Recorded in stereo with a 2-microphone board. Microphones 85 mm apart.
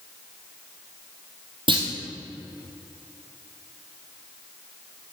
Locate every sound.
1.7 s a clunk: 70° right (ahead or behind), 2.5 m